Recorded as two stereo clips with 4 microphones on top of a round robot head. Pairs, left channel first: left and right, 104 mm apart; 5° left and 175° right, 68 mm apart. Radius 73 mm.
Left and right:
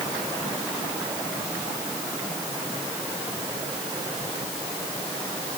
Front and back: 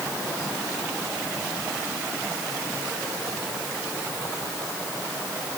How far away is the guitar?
I don't hear a guitar.